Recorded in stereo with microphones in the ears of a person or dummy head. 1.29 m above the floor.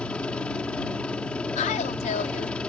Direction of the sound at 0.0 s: 5° left (ahead or behind).